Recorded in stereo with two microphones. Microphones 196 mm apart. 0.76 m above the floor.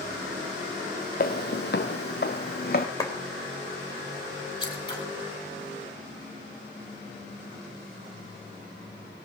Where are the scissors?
20° left (ahead or behind), 5 m.